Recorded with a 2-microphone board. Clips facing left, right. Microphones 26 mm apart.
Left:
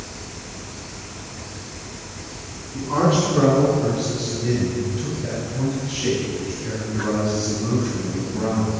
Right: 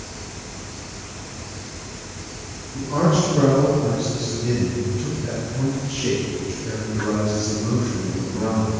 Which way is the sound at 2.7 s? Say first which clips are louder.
Left 1 dB; 75° left (ahead or behind).